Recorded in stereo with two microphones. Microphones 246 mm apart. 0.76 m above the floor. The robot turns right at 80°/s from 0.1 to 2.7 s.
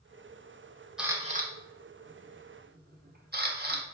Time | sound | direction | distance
1.0 | a camera shutter | 5° right (ahead or behind) | 1.2 m